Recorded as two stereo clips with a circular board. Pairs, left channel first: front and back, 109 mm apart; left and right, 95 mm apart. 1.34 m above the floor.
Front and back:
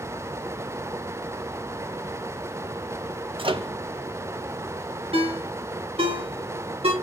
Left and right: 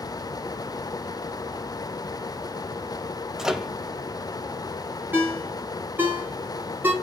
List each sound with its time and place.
3.4 s a microwave: 175° right, 0.7 m
5.1 s a ringtone: 160° right, 1.9 m